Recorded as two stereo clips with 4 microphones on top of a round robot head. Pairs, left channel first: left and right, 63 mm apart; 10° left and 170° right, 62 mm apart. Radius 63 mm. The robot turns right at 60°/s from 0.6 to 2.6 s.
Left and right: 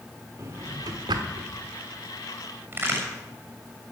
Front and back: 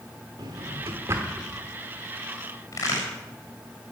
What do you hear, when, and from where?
0.4 s a drawer: 145° right, 1.3 m; by 1.5 s 90° right, 1.3 m
2.7 s a crack: 35° right, 6.5 m